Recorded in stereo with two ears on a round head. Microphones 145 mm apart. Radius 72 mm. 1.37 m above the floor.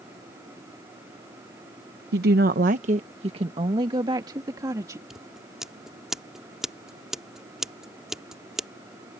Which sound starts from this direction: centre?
Scissors, at 5.1 s.